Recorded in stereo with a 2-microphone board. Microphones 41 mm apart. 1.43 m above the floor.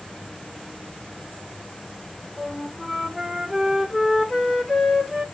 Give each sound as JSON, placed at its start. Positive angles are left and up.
{"t": 2.4, "sound": "a flute", "side_deg": 0, "distance_m": 1.1}